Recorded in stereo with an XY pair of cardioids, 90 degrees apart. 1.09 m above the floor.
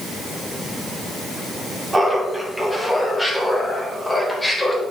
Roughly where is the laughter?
Ahead.